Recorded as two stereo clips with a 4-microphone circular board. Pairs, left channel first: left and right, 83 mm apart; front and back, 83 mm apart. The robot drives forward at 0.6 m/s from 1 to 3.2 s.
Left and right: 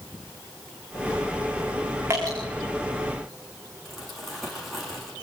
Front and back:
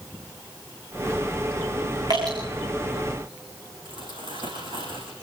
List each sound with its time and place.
2.1 s dripping: 150° right, 9 m
3.9 s crumpling: straight behind, 9.5 m